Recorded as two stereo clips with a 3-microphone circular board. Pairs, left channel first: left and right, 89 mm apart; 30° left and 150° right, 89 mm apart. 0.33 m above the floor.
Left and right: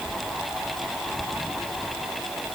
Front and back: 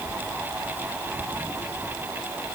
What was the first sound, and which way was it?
Only background noise.